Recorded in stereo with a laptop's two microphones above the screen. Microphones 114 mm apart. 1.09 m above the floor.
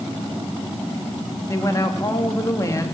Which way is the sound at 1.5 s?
30° left (ahead or behind).